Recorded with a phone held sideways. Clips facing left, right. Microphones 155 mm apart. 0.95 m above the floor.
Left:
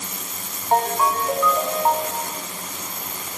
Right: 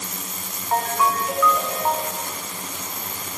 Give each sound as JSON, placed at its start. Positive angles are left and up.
{"t": 0.7, "sound": "a ringtone", "side_deg": 30, "distance_m": 0.9}